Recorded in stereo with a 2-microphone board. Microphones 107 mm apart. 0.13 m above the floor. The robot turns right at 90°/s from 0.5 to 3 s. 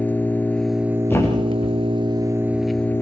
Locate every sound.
0.0 s an engine running: 160° left, 0.7 m; by 3.0 s 25° left, 0.7 m
1.1 s a thud: 15° left (ahead or behind), 4 m; by 1.8 s 80° left, 4 m